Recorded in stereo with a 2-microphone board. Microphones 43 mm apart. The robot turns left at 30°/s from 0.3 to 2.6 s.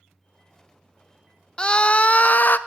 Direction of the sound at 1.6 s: 25° left (ahead or behind).